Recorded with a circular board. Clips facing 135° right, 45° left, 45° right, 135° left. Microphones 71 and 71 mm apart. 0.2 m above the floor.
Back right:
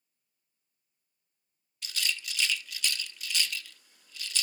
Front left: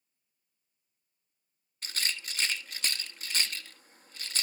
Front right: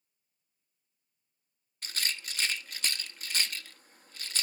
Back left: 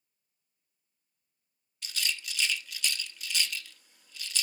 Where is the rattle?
Straight ahead, 0.7 m.